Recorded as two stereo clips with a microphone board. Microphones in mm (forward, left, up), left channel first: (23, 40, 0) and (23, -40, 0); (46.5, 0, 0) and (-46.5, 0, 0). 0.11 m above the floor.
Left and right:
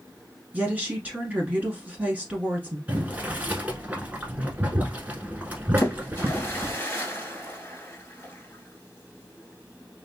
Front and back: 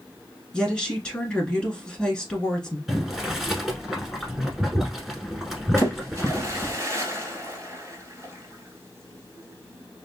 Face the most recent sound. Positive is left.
turn(degrees=140)